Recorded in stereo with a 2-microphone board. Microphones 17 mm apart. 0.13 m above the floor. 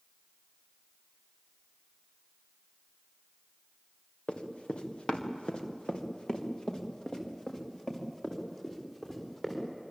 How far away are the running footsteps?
About 3 m.